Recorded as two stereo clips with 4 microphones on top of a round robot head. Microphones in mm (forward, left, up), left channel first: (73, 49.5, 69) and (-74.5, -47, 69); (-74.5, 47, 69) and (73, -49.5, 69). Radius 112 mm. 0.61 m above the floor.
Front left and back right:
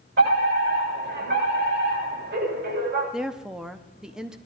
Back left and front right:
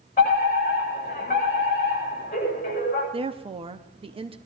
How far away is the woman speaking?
About 1.0 m.